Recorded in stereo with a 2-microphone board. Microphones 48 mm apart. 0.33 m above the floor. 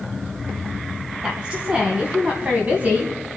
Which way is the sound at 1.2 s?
20° right (ahead or behind).